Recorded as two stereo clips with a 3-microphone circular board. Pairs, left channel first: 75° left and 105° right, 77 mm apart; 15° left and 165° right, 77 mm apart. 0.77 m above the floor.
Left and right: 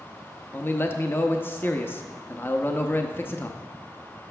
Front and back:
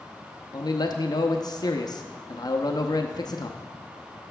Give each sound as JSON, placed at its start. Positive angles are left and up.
{"t": 0.5, "sound": "a man speaking", "azimuth_deg": 15, "distance_m": 0.7}